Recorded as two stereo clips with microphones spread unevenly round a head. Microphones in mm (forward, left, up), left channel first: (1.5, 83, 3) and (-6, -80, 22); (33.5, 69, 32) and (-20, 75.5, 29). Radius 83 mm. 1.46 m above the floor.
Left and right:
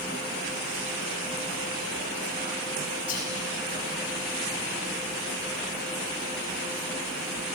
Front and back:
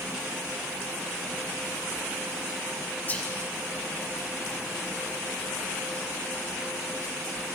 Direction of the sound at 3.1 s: 45° left.